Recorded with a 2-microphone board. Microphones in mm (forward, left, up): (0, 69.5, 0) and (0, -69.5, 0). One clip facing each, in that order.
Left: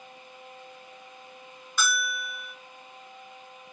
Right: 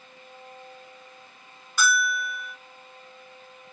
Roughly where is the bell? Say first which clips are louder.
Right 5 dB; centre.